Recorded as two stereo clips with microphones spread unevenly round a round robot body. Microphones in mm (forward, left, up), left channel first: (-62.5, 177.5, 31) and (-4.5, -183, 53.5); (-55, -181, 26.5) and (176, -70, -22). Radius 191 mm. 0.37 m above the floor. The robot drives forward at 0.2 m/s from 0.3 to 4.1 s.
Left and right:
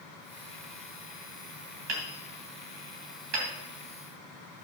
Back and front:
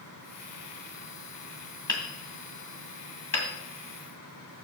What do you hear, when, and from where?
1.9 s hammering: 75° right, 2.5 m; by 3.5 s 85° right, 2.5 m